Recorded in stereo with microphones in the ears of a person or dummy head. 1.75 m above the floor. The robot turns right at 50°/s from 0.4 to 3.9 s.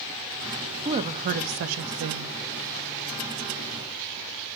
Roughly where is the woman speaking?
Behind right.